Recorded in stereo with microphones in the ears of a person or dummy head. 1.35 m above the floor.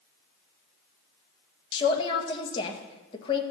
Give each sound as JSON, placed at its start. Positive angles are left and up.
{"t": 1.7, "sound": "a man speaking", "side_deg": 30, "distance_m": 1.7}